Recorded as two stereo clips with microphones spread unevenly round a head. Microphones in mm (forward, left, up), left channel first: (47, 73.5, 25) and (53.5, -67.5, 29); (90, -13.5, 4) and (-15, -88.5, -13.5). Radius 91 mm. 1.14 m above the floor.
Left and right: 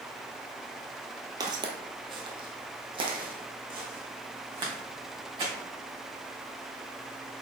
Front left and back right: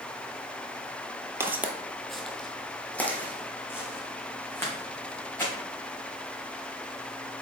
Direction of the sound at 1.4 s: 80° right.